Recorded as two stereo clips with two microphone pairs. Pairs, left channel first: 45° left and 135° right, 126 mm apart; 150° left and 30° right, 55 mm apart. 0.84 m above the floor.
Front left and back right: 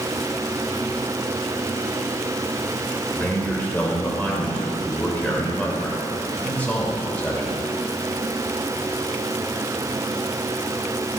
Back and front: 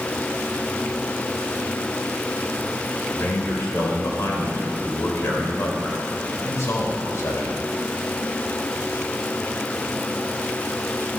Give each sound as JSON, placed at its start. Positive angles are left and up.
{"t": 3.1, "sound": "a man speaking", "azimuth_deg": 125, "distance_m": 3.0}